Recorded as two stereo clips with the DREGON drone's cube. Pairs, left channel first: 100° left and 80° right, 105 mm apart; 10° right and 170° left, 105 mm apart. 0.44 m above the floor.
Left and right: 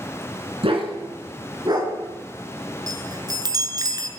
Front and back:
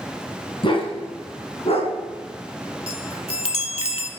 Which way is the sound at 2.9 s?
30° right.